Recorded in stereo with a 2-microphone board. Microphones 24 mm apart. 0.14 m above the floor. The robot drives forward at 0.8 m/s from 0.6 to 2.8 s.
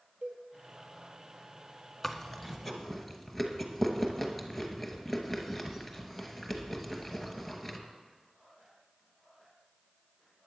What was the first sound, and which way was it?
A cowbell, 55° right (ahead or behind).